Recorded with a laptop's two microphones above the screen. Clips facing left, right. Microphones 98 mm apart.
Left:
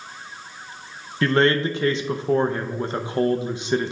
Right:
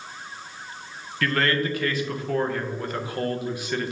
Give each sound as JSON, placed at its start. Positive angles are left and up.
{"t": 1.2, "sound": "a man speaking", "side_deg": 25, "distance_m": 0.6}